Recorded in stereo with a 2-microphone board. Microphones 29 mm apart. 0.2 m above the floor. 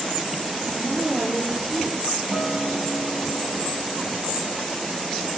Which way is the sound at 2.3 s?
40° right (ahead or behind).